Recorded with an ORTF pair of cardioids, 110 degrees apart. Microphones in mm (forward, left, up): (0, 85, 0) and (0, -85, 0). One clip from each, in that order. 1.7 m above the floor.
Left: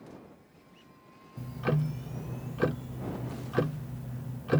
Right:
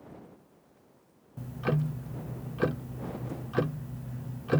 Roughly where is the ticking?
Ahead.